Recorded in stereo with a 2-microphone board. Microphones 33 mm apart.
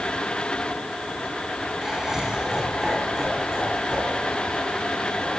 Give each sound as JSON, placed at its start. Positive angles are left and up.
{"t": 1.8, "sound": "laughter", "side_deg": -15, "distance_m": 5.0}